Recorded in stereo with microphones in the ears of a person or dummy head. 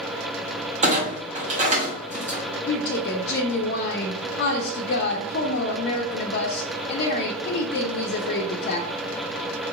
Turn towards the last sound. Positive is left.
turn(degrees=55)  # may be behind; listen again after turning